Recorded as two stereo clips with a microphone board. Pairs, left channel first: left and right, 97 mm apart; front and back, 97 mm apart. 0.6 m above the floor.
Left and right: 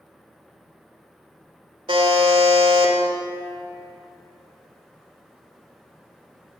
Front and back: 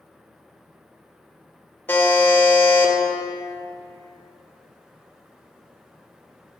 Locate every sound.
1.9 s a buzzer: 65° right, 1.1 m